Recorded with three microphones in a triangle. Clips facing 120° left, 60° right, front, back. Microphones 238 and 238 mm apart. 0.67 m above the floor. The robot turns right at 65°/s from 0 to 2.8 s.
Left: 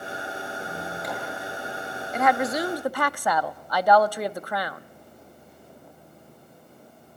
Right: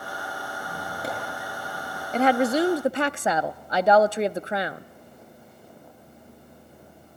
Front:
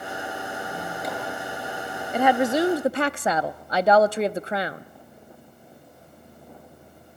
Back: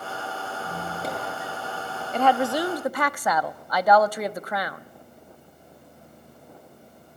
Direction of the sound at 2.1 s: 70° right.